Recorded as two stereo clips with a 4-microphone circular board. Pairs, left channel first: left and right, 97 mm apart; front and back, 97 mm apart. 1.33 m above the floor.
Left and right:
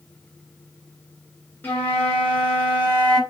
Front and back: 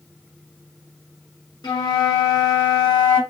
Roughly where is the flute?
Ahead left.